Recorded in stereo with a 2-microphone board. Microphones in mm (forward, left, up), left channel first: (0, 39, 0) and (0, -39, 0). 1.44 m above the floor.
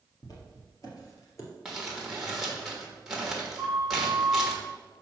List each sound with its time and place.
0.2 s footsteps: 55° left (ahead or behind), 2.5 m; by 1.5 s 40° left (ahead or behind), 1.8 m
1.6 s crumpling: centre (ahead or behind), 1.5 m
3.6 s a flute: 70° left (ahead or behind), 3 m